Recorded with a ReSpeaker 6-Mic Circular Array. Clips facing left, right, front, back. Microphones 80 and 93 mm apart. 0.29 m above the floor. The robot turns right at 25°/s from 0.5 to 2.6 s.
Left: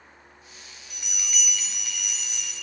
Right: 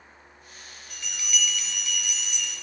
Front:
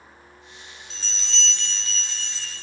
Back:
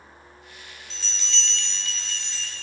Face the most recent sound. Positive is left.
turn(degrees=70)